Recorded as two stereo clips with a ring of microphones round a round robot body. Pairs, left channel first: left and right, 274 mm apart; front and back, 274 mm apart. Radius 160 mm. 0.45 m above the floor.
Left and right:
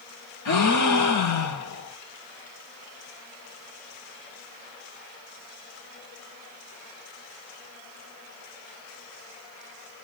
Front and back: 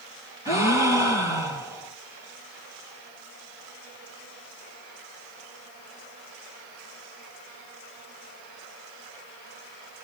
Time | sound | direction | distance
0.5 | a gasp | 80° left | 7 m